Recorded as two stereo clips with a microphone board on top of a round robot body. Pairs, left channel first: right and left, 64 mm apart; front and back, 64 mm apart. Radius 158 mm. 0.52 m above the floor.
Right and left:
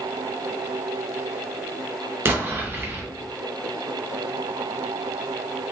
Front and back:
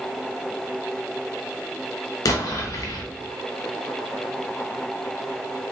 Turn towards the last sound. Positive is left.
turn(degrees=35)